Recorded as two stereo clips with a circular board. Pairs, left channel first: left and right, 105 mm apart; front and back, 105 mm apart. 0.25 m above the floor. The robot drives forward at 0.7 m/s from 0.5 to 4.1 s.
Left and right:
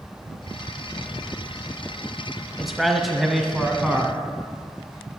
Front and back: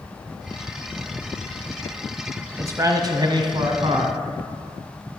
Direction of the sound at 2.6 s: 175° right.